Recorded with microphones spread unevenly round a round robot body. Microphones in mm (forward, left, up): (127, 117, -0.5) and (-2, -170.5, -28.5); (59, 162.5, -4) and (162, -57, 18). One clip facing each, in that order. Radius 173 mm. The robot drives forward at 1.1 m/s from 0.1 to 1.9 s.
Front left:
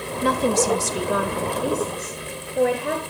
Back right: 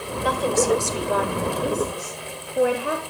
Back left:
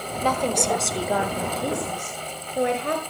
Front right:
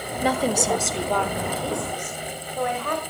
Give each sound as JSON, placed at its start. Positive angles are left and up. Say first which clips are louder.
{"t": 0.2, "sound": "a woman speaking", "louder": "front left 1 dB, front right 2 dB", "azimuth_deg": 15, "distance_m": 1.5}